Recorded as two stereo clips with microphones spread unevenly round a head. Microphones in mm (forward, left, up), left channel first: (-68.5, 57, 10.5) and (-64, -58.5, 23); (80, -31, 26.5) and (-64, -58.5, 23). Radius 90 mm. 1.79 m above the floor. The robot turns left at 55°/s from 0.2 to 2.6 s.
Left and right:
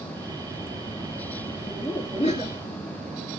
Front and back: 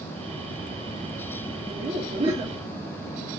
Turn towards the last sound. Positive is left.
turn(degrees=105)